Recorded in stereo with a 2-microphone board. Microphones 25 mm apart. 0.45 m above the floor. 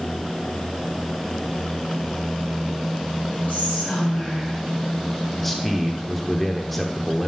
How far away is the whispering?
About 5 m.